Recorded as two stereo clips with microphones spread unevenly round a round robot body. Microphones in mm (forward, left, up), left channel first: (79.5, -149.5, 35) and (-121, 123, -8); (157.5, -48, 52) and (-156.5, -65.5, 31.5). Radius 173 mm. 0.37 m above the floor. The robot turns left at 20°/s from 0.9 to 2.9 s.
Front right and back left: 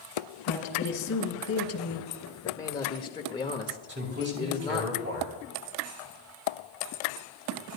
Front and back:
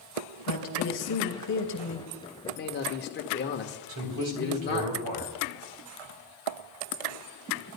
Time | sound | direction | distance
0.5 | a woman speaking | 15° right | 2.5 m
2.4 | a man speaking | 35° left | 0.9 m
3.9 | a man speaking | straight behind | 3 m